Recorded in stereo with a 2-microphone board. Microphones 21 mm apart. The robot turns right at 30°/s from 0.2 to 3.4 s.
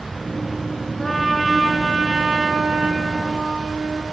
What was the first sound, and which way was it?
A trumpet, 170° left.